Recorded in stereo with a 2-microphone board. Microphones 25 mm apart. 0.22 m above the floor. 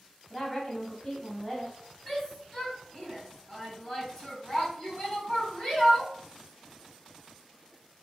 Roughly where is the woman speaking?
Centre.